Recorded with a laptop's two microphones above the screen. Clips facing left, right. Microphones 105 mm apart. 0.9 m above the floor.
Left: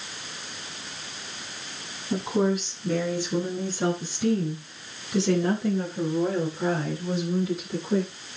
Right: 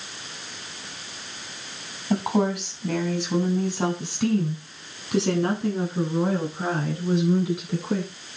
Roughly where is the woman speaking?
Right.